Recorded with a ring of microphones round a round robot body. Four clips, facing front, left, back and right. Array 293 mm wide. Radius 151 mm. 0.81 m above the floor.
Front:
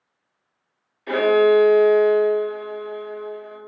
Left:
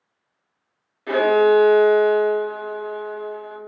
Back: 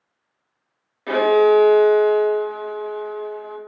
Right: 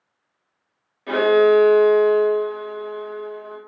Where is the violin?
Straight behind, 1.6 m.